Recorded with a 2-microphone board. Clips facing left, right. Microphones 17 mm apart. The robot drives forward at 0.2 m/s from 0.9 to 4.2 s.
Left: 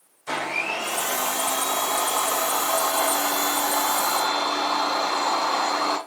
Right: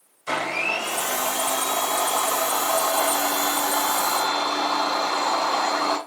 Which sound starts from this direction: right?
A blender, at 0.3 s.